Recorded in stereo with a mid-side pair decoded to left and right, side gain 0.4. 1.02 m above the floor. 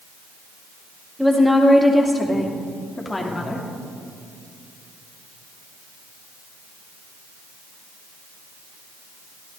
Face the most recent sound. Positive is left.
turn(degrees=30)